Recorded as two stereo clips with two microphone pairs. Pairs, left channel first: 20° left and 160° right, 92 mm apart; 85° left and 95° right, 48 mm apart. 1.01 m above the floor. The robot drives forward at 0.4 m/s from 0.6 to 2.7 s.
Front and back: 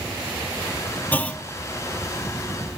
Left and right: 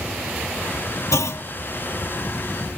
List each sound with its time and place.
1.1 s a clunk: 90° left, 0.9 m; by 1.4 s 100° left, 0.9 m